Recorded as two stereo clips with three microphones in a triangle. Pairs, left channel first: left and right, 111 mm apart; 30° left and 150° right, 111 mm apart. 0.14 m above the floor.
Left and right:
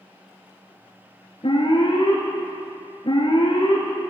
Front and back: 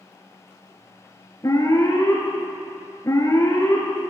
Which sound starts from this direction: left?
An alarm, at 1.4 s.